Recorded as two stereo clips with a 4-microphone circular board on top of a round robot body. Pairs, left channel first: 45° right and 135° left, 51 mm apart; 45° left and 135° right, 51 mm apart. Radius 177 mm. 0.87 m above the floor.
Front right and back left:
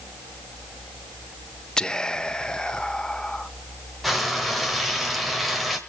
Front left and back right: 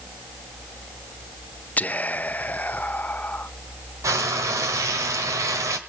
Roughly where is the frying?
Behind right.